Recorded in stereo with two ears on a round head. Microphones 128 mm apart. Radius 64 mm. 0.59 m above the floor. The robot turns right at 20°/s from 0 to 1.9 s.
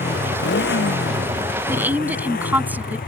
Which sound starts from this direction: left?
A motorcycle, at 0.0 s.